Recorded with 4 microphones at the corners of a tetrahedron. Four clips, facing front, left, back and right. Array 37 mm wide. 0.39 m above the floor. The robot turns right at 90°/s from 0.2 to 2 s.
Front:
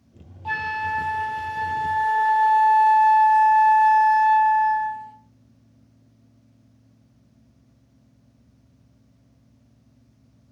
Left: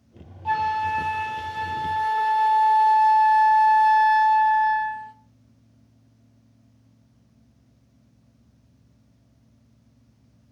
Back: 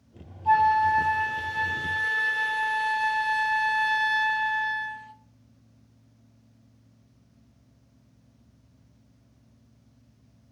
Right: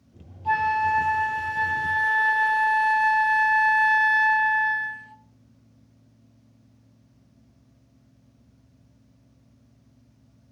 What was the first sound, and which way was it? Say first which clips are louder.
A flute: right 1 dB, back 6 dB; 30° left.